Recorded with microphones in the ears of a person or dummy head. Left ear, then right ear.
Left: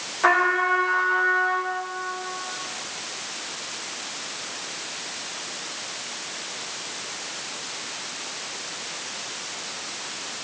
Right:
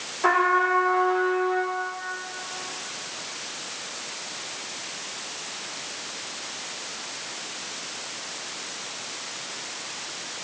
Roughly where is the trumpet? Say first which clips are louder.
Left 1 dB; left.